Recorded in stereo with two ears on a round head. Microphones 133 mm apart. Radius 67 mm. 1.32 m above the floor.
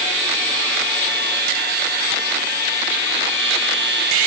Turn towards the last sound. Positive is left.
No sound to turn to.